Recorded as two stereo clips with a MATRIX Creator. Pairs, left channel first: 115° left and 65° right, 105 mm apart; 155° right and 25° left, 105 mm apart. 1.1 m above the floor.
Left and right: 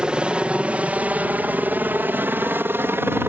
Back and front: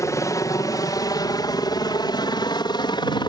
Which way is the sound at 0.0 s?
140° right.